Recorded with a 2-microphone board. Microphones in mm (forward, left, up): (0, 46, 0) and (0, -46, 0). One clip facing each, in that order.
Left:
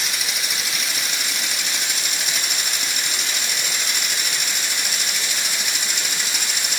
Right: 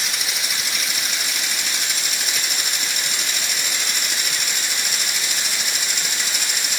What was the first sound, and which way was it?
Only background noise.